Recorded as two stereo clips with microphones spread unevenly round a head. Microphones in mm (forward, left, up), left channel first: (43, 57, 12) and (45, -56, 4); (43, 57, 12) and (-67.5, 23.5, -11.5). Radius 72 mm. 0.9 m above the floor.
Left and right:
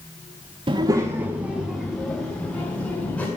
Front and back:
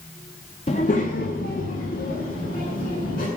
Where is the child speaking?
40° right, 0.8 m; by 3.3 s 15° left, 2.5 m.